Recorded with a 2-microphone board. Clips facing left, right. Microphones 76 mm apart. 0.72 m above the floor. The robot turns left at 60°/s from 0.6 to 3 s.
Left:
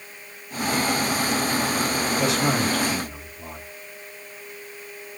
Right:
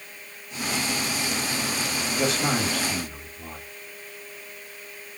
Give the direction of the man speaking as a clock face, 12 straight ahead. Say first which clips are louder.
Left 1 dB; 4 o'clock.